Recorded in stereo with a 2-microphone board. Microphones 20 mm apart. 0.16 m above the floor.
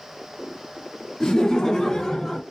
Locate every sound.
1.2 s laughter: 20° left (ahead or behind), 1.5 m; by 2.4 s 10° left (ahead or behind), 1.1 m